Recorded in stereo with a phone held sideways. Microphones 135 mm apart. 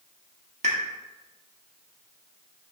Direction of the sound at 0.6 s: 60° right (ahead or behind).